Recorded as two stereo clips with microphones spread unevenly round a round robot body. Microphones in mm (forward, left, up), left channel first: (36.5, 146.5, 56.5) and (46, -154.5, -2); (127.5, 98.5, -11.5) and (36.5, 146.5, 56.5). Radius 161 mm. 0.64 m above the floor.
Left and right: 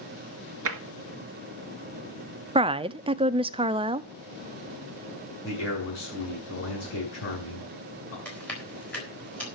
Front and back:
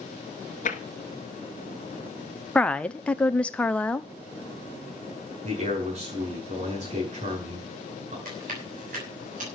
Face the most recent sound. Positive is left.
turn(degrees=180)